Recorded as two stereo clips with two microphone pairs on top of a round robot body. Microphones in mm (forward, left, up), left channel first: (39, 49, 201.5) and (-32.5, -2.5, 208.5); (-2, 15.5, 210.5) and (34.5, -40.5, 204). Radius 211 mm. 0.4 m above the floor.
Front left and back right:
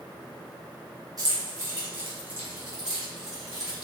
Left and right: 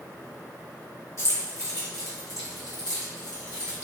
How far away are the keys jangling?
About 1.6 m.